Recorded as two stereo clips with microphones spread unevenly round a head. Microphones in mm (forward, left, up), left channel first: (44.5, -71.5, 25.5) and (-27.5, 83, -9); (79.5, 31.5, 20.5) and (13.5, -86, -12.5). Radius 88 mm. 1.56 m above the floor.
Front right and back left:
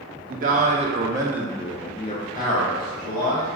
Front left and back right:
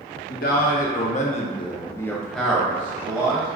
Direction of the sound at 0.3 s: 75° left.